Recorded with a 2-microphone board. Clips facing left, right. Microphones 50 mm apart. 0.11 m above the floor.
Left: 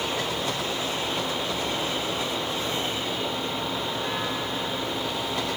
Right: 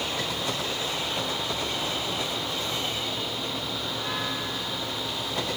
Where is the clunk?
No clunk in this recording.